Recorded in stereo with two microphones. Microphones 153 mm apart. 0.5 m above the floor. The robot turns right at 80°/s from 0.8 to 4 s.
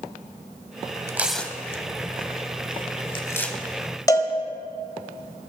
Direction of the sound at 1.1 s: 20° right (ahead or behind).